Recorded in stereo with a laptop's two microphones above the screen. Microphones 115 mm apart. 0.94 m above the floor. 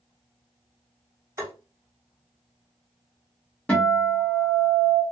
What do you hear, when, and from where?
1.4 s tapping: 25° right (ahead or behind), 1.0 m
3.7 s a guitar: 10° left (ahead or behind), 1.3 m